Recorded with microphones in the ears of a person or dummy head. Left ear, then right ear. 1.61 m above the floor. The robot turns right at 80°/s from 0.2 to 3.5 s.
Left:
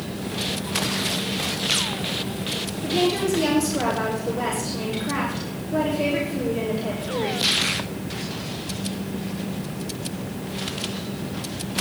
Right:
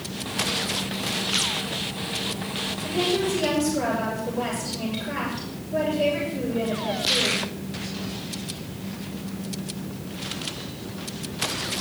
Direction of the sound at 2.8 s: 35° left.